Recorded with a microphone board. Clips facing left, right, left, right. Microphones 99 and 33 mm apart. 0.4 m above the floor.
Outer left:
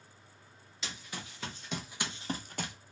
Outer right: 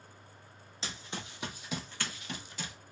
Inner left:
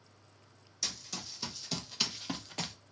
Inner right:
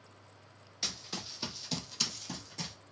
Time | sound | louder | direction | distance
0.8 | running footsteps | outer right 2 dB, inner right 1 dB | 30° right (ahead or behind) | 1.0 m